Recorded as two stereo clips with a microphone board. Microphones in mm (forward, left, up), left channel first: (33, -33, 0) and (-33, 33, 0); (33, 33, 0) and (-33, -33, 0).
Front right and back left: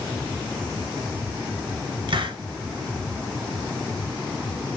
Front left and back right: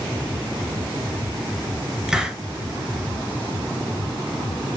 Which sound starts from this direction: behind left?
A hiss, at 2.1 s.